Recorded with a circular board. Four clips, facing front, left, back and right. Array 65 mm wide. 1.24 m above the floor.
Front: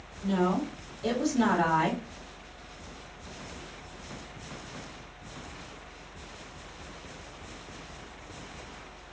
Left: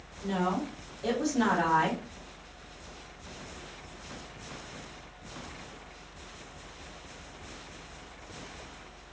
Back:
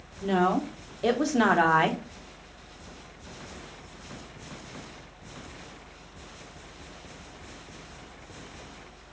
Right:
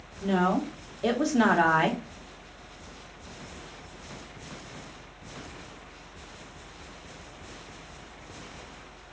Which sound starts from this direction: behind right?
A woman speaking, at 0.2 s.